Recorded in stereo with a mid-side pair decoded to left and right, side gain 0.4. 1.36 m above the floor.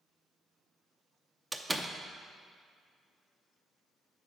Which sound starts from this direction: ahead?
A door slam, at 1.5 s.